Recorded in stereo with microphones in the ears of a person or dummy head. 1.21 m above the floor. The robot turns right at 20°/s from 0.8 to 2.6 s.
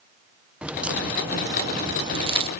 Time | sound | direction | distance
0.6 | a crack | straight behind | ?